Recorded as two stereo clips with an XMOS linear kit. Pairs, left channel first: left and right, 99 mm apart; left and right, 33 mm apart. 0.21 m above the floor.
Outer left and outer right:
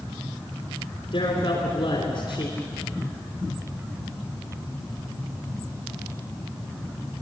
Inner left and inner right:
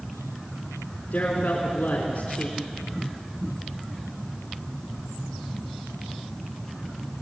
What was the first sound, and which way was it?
A man speaking, 55° left (ahead or behind).